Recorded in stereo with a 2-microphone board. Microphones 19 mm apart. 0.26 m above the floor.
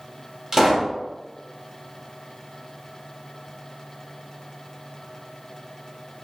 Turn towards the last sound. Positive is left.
turn(degrees=-25)  # may be behind; listen again after turning